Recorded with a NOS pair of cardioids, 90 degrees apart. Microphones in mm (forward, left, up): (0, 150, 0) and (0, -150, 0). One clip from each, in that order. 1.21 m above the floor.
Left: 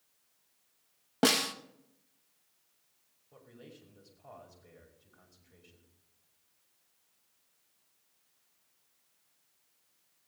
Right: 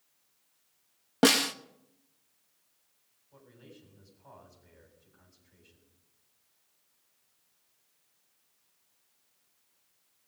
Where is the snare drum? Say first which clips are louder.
Right 4 dB; 15° right, 0.8 m.